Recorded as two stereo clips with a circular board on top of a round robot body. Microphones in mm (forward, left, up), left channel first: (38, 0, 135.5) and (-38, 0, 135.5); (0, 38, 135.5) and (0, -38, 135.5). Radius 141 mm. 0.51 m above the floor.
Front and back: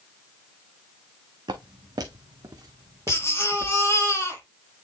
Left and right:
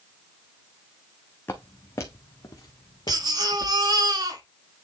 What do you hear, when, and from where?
1.5 s footsteps: 155° left, 1.4 m; by 3.8 s 125° left, 2.5 m
3.1 s a baby crying: 60° right, 5 m